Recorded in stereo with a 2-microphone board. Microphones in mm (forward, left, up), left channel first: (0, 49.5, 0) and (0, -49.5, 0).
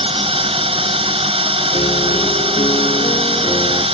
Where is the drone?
70° right (ahead or behind).